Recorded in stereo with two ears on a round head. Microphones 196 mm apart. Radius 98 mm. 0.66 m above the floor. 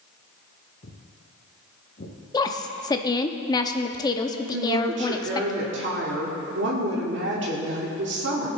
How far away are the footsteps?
About 1.8 m.